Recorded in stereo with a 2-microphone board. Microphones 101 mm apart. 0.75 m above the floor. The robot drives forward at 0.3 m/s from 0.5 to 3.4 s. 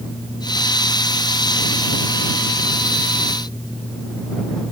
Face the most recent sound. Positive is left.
No sound to turn to.